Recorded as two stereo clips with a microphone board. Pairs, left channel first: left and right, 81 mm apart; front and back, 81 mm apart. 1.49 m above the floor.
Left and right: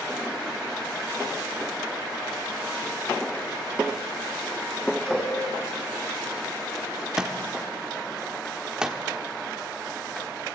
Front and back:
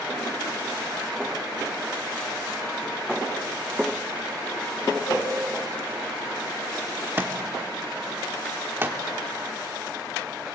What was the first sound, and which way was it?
A cowbell, 10° left.